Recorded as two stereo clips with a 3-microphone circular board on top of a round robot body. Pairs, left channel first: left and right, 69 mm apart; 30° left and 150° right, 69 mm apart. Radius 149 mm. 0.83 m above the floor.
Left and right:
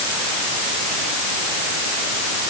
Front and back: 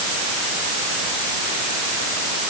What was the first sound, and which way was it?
Only background noise.